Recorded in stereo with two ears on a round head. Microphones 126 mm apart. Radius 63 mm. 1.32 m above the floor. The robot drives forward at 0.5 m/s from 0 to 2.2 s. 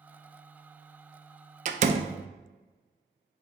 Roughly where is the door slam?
Right.